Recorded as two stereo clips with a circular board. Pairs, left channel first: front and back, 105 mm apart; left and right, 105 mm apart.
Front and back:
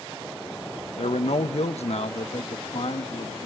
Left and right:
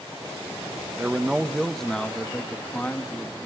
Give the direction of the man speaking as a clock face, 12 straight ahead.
12 o'clock.